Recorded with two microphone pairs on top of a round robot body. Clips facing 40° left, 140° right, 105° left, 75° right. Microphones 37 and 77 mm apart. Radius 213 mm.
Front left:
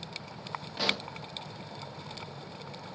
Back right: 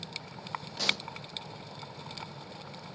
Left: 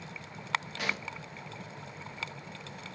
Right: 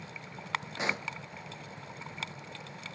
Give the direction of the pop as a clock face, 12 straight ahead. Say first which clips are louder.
Front left 1 dB, right 2 dB; 12 o'clock.